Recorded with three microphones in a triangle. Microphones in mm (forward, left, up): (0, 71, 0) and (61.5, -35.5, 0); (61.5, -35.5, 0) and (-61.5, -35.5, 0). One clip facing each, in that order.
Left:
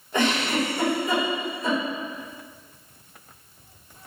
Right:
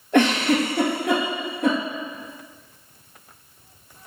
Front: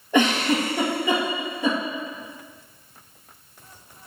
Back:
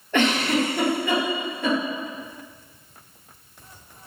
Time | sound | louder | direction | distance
0.1 | a giggle | right 5 dB, front 1 dB | 75° right | 1.9 m